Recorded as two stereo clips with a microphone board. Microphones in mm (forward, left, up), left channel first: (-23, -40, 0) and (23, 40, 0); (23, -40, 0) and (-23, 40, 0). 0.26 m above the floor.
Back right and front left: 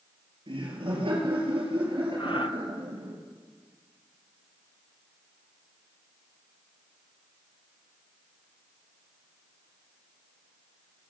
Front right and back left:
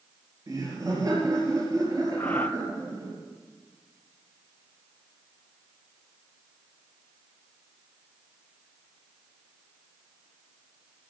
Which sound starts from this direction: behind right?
Breathing, at 2.2 s.